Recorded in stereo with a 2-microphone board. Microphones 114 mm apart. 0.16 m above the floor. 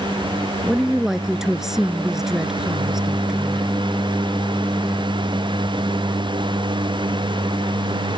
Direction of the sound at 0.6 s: 5° right (ahead or behind).